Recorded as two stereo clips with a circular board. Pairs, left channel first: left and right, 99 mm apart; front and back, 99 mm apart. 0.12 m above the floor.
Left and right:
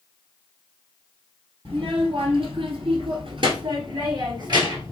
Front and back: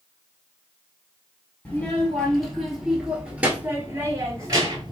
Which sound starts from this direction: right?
A child speaking, at 1.6 s.